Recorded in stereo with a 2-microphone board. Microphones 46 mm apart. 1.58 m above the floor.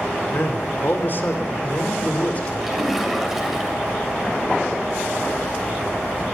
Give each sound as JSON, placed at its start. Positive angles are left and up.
{"t": 0.3, "sound": "a man speaking", "side_deg": 55, "distance_m": 4.5}
{"t": 2.6, "sound": "a splash", "side_deg": -5, "distance_m": 7.5}